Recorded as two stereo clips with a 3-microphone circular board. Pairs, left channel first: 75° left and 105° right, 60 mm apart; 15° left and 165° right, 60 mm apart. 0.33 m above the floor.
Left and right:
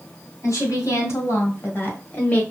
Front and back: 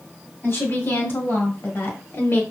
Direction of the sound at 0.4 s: 55° left.